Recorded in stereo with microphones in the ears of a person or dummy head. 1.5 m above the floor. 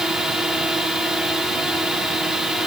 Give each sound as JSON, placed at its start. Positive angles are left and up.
{"t": 0.0, "sound": "a drone", "side_deg": -5}